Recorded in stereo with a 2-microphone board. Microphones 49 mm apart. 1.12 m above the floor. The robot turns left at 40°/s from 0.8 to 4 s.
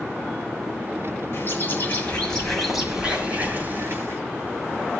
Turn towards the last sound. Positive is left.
turn(degrees=-55)